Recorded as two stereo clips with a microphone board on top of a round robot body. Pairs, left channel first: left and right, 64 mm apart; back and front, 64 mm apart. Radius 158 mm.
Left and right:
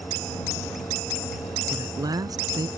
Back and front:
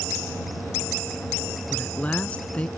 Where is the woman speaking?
110° right.